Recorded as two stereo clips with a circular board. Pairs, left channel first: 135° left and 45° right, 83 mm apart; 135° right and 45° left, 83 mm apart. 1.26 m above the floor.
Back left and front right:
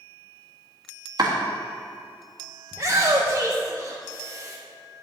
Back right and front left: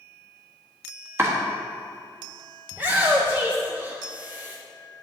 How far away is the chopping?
About 1.3 m.